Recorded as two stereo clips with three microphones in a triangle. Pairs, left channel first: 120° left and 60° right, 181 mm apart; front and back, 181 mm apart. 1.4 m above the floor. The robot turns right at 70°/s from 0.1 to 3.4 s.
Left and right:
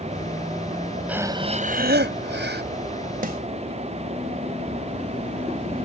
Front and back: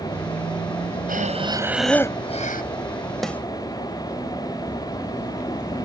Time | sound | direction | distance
1.1 | breathing | 145° right | ?
3.2 | a snare drum | 90° right | ?